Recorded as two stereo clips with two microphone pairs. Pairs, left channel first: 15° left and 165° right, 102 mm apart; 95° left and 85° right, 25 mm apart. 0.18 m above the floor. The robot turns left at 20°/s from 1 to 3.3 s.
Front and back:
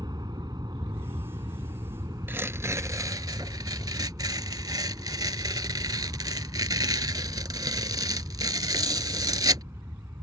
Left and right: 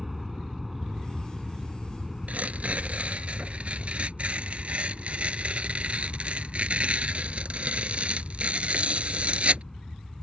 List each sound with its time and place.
0.0 s an aircraft: 165° right; by 10.2 s 145° left
2.3 s tearing paper: 95° right; by 9.6 s 115° right